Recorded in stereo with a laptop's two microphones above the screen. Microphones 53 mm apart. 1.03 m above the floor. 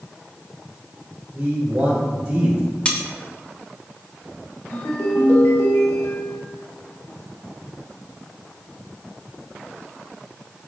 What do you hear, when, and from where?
1.3 s a man speaking: 40° right (ahead or behind), 3 m; by 2.6 s 15° right (ahead or behind), 3.5 m
2.9 s cutlery clinking: 20° left (ahead or behind), 0.7 m
4.7 s a ringtone: 75° left (ahead or behind), 2.5 m